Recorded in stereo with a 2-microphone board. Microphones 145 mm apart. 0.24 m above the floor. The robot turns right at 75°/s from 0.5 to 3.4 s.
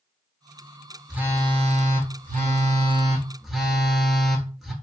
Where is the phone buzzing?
175° right, 0.6 m; by 4.7 s straight ahead, 0.6 m.